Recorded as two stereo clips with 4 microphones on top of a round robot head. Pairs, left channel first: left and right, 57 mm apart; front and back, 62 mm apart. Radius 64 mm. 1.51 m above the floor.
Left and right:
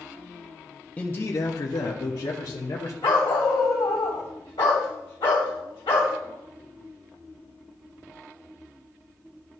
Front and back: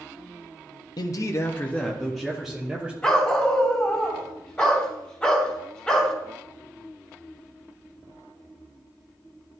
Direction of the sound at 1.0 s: 20° left.